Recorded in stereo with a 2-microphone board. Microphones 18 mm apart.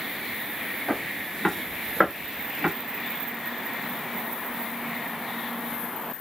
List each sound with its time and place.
0.9 s footsteps: 45° left (ahead or behind), 1.3 m; by 2.7 s 40° right (ahead or behind), 1.3 m